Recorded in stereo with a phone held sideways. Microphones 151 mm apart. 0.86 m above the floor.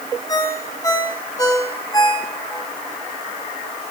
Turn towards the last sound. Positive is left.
turn(degrees=25)  # may be behind; listen again after turning